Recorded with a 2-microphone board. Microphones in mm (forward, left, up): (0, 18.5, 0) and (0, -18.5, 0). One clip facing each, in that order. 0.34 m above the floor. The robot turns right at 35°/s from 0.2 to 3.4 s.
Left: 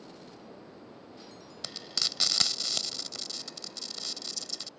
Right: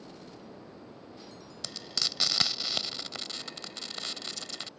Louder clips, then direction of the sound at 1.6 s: Even; 10° left (ahead or behind).